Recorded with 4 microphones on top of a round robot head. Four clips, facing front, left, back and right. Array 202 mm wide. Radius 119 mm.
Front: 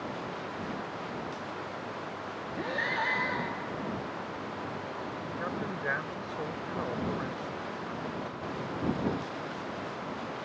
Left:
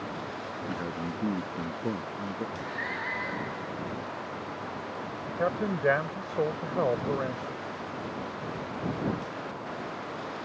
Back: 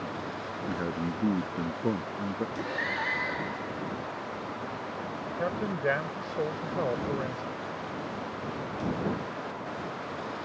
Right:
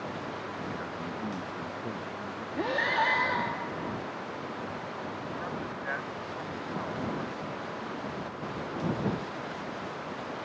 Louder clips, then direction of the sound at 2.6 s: Right 7 dB, even; 95° right.